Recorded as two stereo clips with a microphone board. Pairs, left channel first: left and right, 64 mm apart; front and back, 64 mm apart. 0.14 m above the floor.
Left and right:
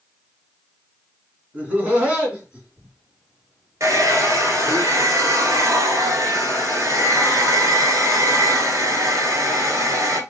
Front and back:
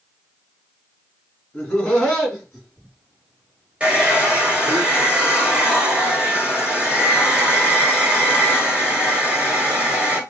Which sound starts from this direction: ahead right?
Laughter, at 1.5 s.